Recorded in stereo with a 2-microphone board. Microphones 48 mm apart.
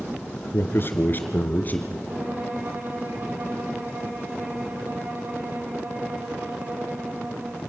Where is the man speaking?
55° left (ahead or behind), 2.5 m; by 2.0 s 35° left (ahead or behind), 3 m.